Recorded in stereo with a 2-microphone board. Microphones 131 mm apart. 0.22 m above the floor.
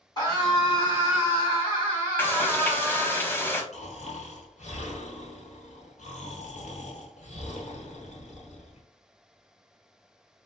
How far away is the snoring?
About 1.1 m.